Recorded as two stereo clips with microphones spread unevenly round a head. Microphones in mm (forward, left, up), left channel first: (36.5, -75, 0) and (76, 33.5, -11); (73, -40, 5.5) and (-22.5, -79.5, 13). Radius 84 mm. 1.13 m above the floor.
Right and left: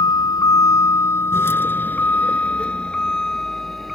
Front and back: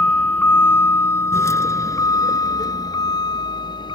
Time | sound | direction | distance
0.0 | a vehicle | 55° right | ?